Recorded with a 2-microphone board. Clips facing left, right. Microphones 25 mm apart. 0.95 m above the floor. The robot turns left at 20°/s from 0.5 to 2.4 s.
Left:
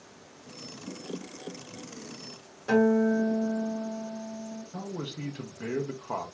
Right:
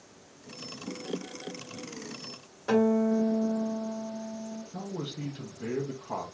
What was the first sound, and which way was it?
A guitar, 20° right (ahead or behind).